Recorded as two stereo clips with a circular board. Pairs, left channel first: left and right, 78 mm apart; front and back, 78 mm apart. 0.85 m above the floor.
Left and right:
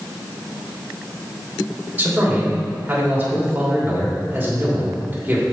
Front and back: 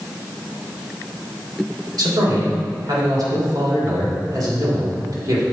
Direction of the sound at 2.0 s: 155° right.